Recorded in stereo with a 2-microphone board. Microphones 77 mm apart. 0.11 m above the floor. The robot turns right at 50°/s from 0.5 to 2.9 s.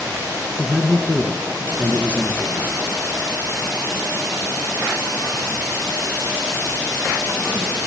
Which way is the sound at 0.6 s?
5° left (ahead or behind).